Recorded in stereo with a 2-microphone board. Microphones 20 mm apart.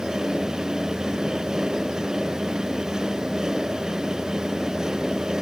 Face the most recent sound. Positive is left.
No sound to turn to.